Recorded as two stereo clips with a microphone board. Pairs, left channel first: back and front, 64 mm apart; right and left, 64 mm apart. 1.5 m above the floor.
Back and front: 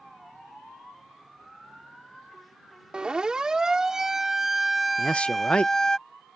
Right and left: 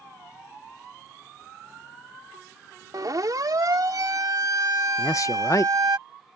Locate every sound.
2.9 s a siren: 75° left; by 6.0 s 100° left
5.0 s a man speaking: 110° right